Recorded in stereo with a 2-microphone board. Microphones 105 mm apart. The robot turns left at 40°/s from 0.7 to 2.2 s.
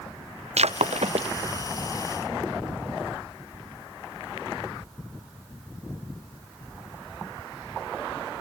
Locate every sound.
0.6 s breaking glass: 85° right; by 1.3 s 70° right (ahead or behind)